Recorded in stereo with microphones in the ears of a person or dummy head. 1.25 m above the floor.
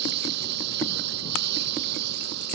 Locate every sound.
0.0 s a lawn mower: 65° right (ahead or behind)